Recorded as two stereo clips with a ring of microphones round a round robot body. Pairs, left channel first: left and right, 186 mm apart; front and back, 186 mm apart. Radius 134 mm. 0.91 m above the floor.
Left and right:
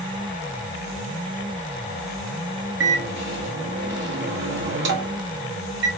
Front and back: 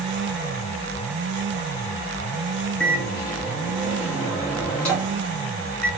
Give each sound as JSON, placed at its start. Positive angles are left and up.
{"t": 2.8, "sound": "a microwave", "azimuth_deg": -85, "distance_m": 1.1}